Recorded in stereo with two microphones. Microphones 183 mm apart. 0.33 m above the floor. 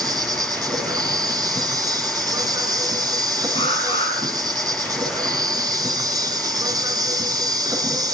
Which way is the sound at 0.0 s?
20° right (ahead or behind).